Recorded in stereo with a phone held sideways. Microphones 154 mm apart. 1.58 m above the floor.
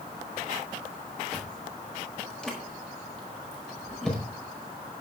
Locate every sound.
1.3 s chewing: 5° left (ahead or behind), 5 m